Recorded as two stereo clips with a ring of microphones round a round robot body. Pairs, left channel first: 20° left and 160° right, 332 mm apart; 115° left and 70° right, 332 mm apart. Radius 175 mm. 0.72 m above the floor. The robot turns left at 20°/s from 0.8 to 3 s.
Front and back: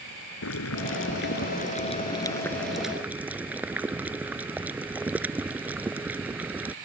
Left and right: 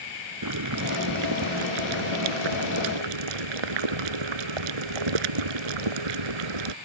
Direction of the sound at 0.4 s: 30° right.